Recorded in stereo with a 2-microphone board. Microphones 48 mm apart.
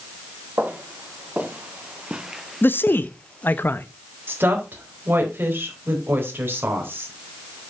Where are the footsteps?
40° right (ahead or behind), 1.8 m; by 3.6 s 30° left (ahead or behind), 1.1 m.